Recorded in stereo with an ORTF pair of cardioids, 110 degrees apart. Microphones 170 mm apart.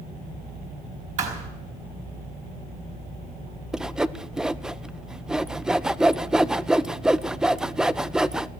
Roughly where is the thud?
Ahead right.